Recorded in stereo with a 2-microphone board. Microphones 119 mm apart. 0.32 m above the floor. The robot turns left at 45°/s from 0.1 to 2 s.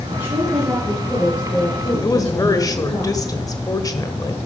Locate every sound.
0.1 s a woman speaking: 130° right, 6 m; by 3.0 s 145° left, 6 m
2.0 s a woman speaking: 30° left (ahead or behind), 1.4 m